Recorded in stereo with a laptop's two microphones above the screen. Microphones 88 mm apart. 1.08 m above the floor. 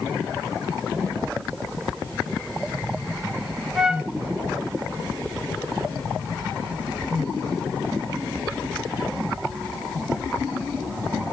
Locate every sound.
3.8 s a flute: 5° right (ahead or behind), 0.8 m